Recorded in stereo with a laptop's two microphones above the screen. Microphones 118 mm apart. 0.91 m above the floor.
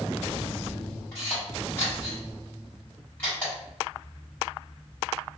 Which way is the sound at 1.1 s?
15° left (ahead or behind).